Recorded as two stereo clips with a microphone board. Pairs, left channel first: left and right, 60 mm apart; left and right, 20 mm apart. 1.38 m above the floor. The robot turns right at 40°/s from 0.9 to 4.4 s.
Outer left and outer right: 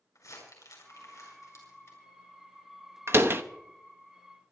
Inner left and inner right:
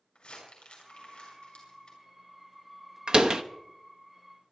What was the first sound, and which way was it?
Crumpling, 80° left.